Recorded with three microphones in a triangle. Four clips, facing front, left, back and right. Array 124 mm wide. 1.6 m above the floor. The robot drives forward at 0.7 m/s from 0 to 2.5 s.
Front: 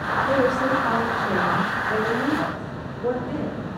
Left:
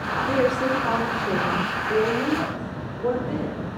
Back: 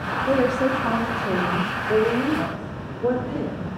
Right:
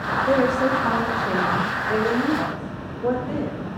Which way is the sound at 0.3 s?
140° right.